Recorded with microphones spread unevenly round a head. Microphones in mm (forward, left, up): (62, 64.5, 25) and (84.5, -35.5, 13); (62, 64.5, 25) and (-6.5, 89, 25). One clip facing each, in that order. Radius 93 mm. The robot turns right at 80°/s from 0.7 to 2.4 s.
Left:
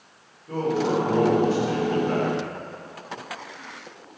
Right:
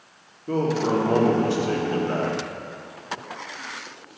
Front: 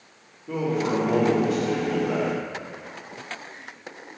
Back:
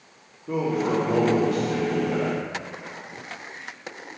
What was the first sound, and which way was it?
A man speaking, 120° right.